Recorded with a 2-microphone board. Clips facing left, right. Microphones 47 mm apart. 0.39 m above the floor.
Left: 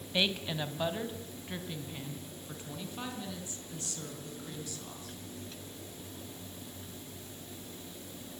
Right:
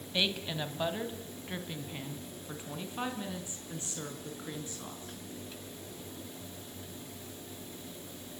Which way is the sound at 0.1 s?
10° left (ahead or behind).